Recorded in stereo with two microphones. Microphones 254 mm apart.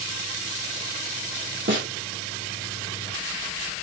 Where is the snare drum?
45° right (ahead or behind), 1.3 m.